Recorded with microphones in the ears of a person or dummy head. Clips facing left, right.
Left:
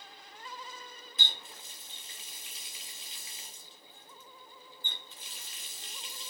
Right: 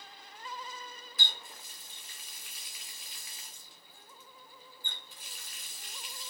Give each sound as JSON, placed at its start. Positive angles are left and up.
{"t": 1.2, "sound": "a running tap", "side_deg": 25, "distance_m": 0.9}